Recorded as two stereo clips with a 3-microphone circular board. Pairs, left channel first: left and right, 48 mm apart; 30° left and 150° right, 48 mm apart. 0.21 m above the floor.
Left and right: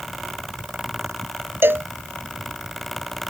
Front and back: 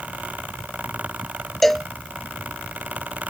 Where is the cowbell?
55° right.